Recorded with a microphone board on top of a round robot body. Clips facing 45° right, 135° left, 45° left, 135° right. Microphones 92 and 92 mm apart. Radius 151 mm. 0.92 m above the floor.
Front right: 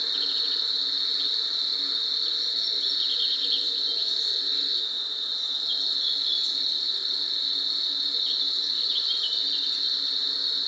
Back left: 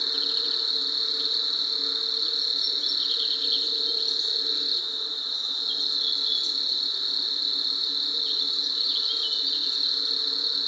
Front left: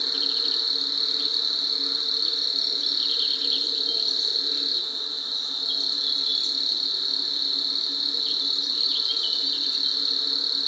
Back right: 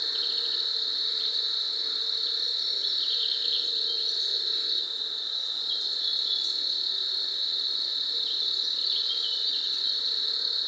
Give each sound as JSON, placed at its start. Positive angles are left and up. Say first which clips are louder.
{"t": 0.0, "sound": "an insect", "louder": "back left 2 dB, front left 5 dB", "azimuth_deg": 70, "distance_m": 3.0}